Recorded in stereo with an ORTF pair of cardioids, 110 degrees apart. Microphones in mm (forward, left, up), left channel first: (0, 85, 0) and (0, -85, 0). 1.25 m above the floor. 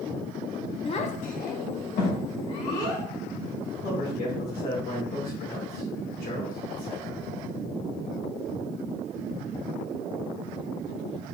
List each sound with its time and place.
0.8 s a child speaking: 30° left, 0.8 m; by 3.0 s 75° left, 3 m
3.8 s a man speaking: 70° left, 2.5 m